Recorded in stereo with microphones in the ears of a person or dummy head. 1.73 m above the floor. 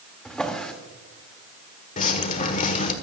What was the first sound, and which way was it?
A drawer, 5° right (ahead or behind).